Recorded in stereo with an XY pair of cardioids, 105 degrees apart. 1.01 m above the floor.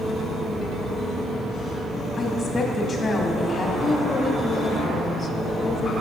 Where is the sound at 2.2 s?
30° left, 1.3 m.